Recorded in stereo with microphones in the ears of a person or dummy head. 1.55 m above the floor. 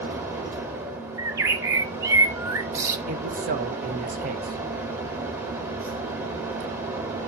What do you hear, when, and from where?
0.0 s a fan: 15° right (ahead or behind), 1.6 m
1.2 s a bird: 15° right (ahead or behind), 0.8 m
3.1 s a man speaking: 40° right (ahead or behind), 1.1 m